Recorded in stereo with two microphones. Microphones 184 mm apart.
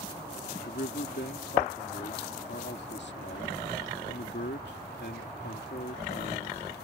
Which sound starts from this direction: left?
A man speaking, at 0.7 s.